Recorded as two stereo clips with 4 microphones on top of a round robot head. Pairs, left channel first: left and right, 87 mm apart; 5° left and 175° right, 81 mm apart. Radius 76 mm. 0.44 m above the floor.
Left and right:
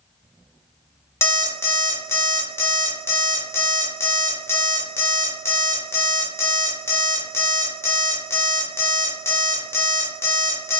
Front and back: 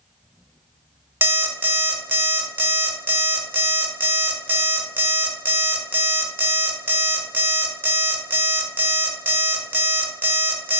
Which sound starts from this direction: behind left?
An alarm clock, at 1.2 s.